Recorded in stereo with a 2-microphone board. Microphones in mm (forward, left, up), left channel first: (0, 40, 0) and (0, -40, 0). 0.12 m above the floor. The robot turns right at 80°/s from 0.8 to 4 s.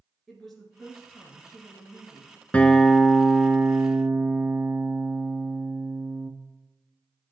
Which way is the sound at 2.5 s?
20° left (ahead or behind).